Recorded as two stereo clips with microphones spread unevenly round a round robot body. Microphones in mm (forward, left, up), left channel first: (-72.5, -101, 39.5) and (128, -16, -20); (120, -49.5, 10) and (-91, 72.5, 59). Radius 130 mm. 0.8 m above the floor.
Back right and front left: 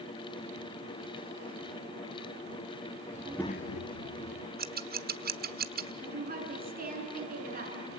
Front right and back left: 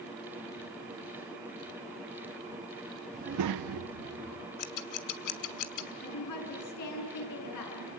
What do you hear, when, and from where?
3.1 s a child speaking: 80° left, 0.7 m; by 4.5 s 165° right, 1.6 m
4.6 s scissors: 25° right, 1.3 m
6.0 s a woman speaking: 25° right, 7.5 m